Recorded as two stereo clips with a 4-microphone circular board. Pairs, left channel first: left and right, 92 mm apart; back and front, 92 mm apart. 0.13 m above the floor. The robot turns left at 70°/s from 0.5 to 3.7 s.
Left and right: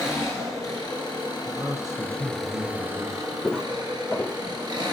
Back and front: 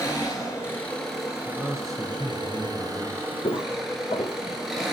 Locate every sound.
0.0 s an engine running: 135° left, 1.5 m; by 4.9 s 90° right, 1.5 m
1.4 s a man speaking: 65° right, 1.6 m; by 3.3 s 160° left, 1.6 m
3.4 s footsteps: straight behind, 0.6 m; by 4.4 s 160° left, 0.6 m